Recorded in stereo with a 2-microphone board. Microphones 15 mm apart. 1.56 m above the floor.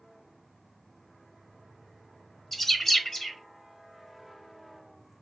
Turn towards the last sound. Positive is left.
turn(degrees=10)  # may be behind; listen again after turning